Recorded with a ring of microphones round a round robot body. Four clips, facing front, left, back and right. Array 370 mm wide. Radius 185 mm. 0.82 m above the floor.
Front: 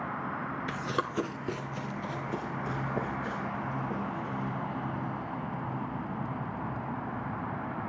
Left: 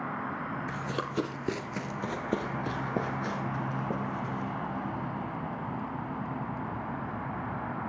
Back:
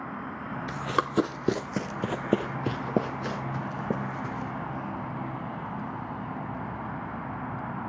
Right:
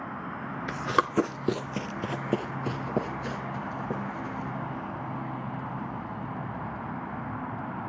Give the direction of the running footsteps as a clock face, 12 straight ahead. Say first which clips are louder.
Right 7 dB, back 6 dB; 3 o'clock.